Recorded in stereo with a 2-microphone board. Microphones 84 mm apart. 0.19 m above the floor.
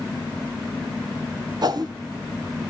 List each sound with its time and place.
1.6 s a whoosh: 55° right (ahead or behind), 1.0 m